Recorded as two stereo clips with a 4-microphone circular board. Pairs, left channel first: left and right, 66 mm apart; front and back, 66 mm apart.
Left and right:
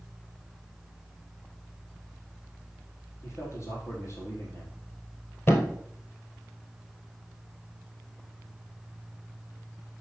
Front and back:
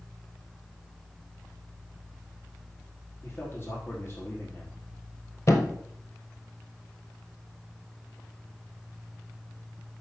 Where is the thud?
40° left, 1.5 m.